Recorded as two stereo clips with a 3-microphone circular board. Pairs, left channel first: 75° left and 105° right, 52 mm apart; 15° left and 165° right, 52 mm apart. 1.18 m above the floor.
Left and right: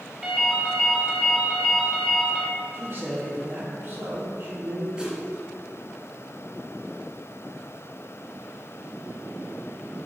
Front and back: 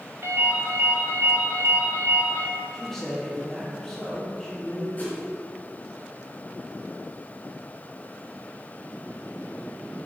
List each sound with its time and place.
0.2 s a ringtone: 175° left, 1.8 m
2.7 s a man speaking: 65° right, 2.5 m
5.0 s a whoosh: 35° right, 2 m